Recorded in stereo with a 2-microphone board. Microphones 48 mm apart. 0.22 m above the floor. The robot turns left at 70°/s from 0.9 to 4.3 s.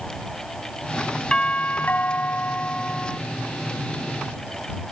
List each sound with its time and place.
1.3 s a doorbell: 150° left; by 3.2 s 20° left